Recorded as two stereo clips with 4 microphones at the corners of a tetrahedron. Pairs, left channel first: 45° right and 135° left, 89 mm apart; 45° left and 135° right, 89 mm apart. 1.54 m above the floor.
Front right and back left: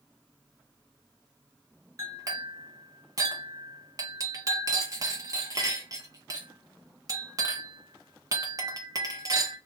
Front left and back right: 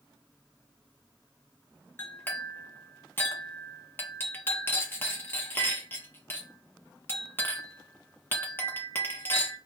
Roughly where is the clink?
Left.